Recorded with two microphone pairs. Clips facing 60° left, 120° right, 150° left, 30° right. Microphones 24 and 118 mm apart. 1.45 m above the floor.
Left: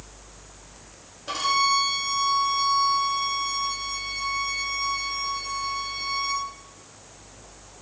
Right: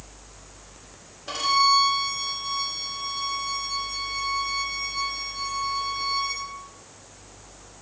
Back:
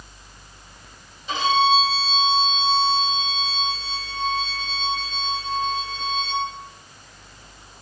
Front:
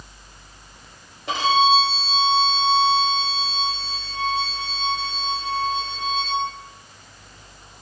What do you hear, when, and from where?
1.3 s a violin: 25° right, 4 m